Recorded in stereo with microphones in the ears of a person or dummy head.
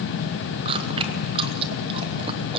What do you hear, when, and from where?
0.7 s chewing: 30° right (ahead or behind), 1.0 m